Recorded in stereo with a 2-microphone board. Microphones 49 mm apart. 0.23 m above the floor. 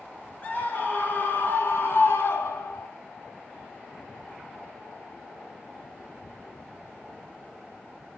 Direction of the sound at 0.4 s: 35° left (ahead or behind).